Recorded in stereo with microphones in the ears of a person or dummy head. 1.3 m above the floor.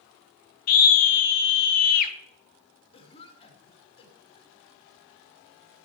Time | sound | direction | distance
0.7 | a scream | 50° left (ahead or behind) | 1.1 m
2.9 | a cough | 30° left (ahead or behind) | 2.5 m